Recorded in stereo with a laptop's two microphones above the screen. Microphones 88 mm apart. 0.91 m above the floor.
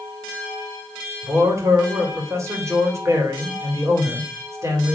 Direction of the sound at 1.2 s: 35° right (ahead or behind).